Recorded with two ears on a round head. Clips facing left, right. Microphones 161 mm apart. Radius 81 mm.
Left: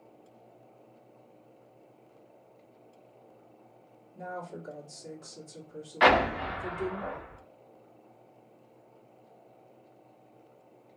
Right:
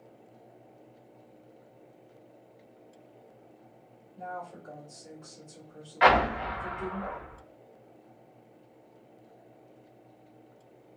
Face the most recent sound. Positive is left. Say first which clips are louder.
# even
turn(degrees=55)  # may be behind; listen again after turning